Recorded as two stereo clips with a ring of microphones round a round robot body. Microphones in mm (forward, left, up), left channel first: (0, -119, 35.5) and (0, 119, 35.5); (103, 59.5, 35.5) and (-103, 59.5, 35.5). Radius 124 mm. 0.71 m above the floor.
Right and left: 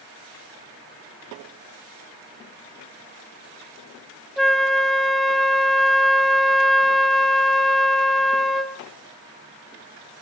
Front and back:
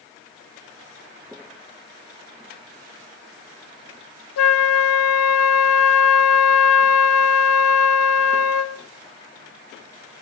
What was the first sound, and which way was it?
A flute, straight ahead.